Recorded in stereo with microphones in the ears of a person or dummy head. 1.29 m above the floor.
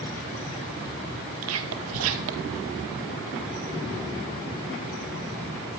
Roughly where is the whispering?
Right.